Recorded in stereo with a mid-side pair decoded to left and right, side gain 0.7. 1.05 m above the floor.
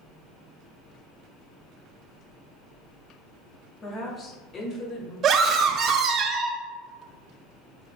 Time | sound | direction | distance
3.8 | a woman speaking | 30° left | 2.5 m
5.2 | a scream | 40° right | 1.3 m